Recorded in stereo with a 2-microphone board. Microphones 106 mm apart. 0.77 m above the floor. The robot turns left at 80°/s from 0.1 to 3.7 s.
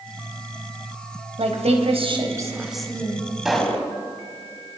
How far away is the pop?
About 4 m.